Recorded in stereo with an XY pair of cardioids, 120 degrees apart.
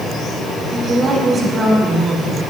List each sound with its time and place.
0.7 s a woman speaking: 35° right, 5.5 m; by 2.4 s 40° right, 6 m